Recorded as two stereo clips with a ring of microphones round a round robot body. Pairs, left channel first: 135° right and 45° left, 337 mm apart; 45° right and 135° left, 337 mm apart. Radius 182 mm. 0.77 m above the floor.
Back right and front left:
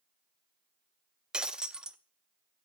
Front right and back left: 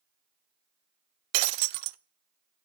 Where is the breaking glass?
135° left, 0.6 m.